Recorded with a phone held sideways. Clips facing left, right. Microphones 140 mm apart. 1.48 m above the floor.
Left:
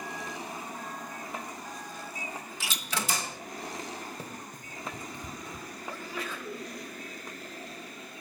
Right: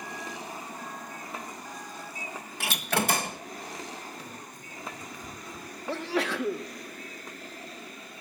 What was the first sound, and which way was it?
A door slam, 60° right (ahead or behind).